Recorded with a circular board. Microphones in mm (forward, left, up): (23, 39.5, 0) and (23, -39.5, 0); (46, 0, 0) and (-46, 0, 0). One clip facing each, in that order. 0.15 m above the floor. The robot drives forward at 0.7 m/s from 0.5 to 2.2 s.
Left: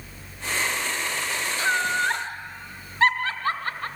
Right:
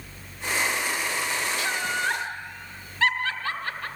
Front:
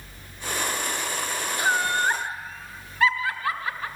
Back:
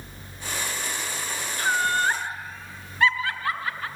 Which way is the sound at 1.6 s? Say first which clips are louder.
Left 8 dB, even; 65° left.